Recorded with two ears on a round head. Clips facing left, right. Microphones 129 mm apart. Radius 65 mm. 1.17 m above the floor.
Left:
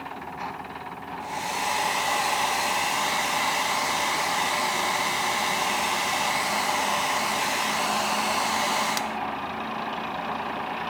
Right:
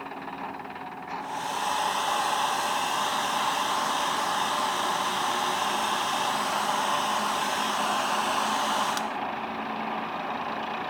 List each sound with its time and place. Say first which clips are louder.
1.2 s a hair dryer: left 1 dB; 10° left (ahead or behind)